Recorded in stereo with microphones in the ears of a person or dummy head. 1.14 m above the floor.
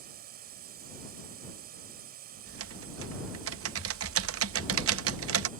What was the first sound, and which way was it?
A drone, 45° right (ahead or behind).